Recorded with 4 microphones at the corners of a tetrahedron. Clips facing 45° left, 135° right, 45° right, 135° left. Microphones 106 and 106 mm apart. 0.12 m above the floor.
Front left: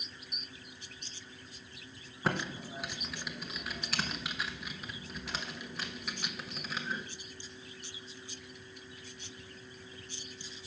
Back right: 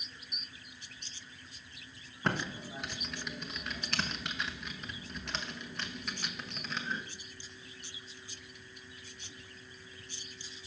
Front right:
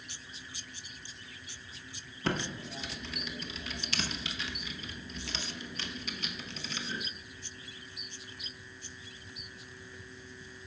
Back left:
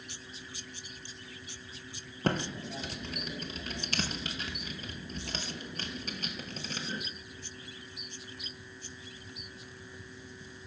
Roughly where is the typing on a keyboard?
Behind left.